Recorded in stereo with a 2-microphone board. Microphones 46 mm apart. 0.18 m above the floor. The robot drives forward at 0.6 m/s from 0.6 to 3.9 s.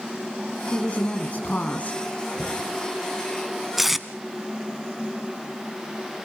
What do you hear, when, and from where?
0.7 s a woman speaking: 30° left (ahead or behind), 1.9 m; by 2.0 s 35° left (ahead or behind), 1.6 m
2.4 s knocking: 15° left (ahead or behind), 3.5 m
3.8 s tape being pulled: 5° right (ahead or behind), 0.7 m